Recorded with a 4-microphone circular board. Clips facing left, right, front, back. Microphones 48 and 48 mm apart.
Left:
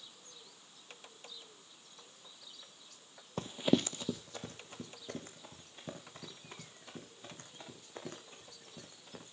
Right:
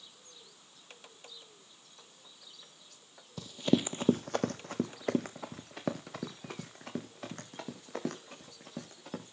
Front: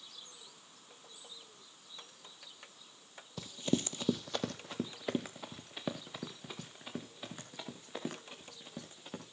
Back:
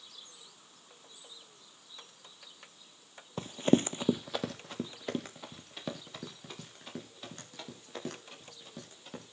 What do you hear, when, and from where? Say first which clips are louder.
3.4 s running footsteps: right 2 dB, back 8 dB; 135° left, 0.7 m; by 9.3 s 80° right, 7.5 m